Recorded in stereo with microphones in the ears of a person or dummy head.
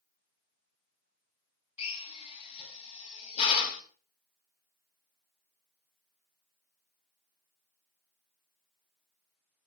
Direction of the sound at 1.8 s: 35° left (ahead or behind).